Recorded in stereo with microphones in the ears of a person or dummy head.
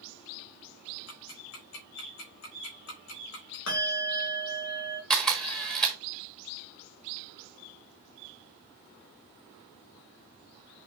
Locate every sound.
1.1 s ticking: 80° left, 3 m
3.7 s a bell: 80° left, 3 m
5.1 s a camera shutter: 5° left (ahead or behind), 1.4 m